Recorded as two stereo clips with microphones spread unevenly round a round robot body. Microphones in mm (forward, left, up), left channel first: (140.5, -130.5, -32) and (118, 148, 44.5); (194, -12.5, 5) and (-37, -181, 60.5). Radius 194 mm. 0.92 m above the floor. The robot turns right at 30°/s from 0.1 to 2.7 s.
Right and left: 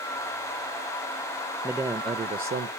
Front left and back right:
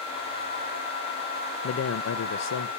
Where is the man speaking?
Straight ahead, 0.5 m; by 2.7 s 30° left, 0.5 m.